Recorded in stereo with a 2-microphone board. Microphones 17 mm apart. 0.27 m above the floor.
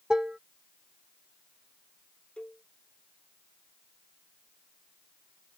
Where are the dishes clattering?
55° right (ahead or behind).